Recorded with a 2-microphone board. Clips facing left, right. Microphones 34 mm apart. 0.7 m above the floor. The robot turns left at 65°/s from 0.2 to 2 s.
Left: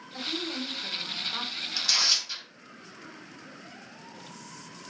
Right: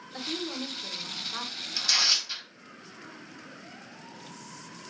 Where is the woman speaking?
15° right (ahead or behind), 0.7 m; by 1.7 s 15° left (ahead or behind), 0.7 m.